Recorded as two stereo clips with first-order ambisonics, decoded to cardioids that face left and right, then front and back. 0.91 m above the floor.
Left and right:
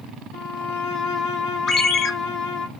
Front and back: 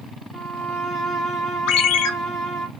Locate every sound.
0.3 s a violin: 115° left, 0.7 m
1.7 s a ringtone: 25° left, 0.6 m